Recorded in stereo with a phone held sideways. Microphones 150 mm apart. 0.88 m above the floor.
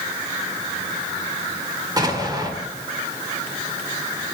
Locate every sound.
2.0 s an explosion: 25° right (ahead or behind), 1.7 m